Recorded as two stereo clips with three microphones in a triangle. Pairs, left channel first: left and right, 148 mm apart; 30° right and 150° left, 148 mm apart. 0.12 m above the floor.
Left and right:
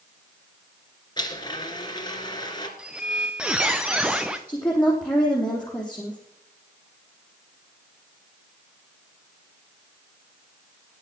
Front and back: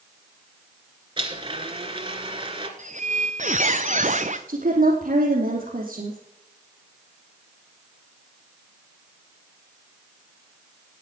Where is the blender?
125° left, 2 m.